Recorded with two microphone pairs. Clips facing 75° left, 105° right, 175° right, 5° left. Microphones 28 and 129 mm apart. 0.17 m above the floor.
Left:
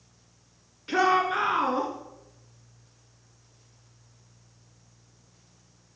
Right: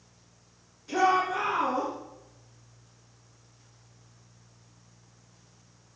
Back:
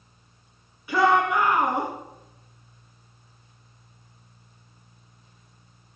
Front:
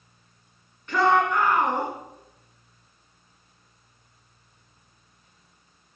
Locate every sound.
0.9 s a shout: 105° left, 2 m